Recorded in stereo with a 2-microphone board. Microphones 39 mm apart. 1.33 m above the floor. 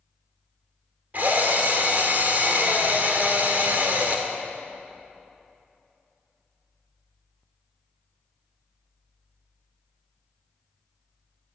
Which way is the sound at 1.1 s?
45° right (ahead or behind).